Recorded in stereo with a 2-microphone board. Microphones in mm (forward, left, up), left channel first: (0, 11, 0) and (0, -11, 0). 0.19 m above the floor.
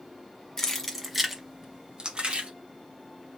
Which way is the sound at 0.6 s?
15° left (ahead or behind).